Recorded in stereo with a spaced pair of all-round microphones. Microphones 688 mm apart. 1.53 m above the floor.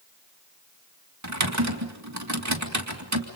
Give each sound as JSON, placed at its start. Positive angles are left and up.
{"t": 1.2, "sound": "typing on a keyboard", "side_deg": -25, "distance_m": 2.5}